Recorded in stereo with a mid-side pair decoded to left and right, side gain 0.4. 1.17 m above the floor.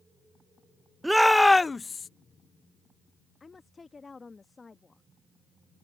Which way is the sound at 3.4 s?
30° left.